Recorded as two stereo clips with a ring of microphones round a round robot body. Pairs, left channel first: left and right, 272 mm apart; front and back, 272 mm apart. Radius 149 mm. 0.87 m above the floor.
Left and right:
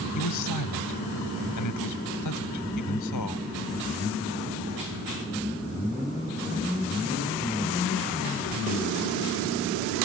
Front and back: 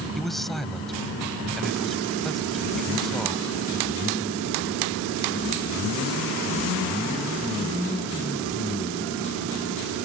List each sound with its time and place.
0.1 s a man speaking: 90° left